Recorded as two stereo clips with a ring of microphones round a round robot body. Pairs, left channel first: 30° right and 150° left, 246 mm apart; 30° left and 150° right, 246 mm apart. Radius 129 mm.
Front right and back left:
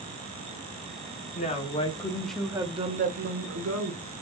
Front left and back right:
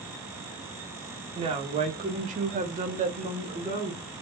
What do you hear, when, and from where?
1.4 s a woman speaking: 85° right, 1.3 m; by 4.0 s 130° left, 1.3 m